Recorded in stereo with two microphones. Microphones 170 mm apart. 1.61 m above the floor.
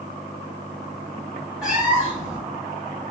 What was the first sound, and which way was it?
A cat meowing, 5° right (ahead or behind).